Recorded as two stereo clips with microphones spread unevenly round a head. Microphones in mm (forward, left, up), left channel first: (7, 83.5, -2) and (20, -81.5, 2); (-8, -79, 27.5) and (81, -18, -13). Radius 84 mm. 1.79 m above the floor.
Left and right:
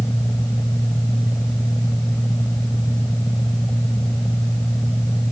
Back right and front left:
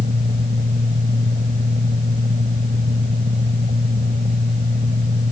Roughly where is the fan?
Ahead.